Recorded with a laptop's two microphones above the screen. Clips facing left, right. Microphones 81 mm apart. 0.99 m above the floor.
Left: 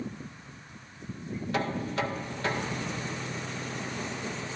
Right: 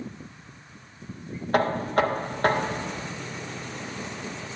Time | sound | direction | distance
1.5 | knocking | 50° right (ahead or behind) | 0.6 m